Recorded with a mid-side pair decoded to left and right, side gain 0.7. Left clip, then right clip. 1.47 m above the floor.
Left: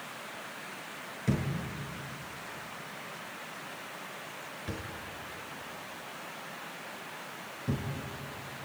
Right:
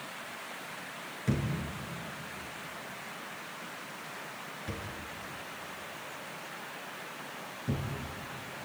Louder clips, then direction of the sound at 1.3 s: Left 1 dB; 10° left.